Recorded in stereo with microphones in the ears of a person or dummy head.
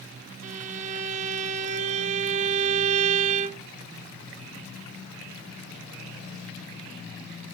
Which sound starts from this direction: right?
A violin, at 0.4 s.